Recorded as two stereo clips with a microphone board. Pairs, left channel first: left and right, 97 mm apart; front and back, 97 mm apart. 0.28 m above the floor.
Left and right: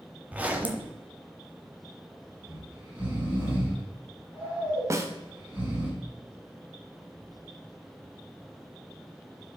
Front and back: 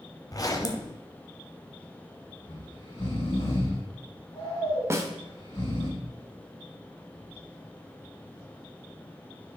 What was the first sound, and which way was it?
A zipper, 25° right.